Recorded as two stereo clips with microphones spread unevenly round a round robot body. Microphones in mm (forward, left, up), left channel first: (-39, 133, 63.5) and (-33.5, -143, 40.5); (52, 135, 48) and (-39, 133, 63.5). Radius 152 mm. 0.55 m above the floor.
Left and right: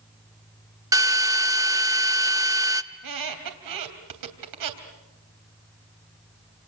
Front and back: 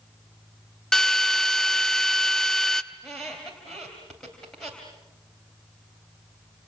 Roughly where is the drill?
Ahead right.